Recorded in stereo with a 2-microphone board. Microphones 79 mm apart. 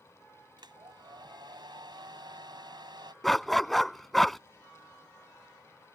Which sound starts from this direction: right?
A hair dryer, at 0.6 s.